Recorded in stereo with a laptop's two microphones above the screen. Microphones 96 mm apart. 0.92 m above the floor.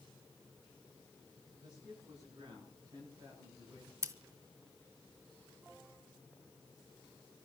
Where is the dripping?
No dripping in this recording.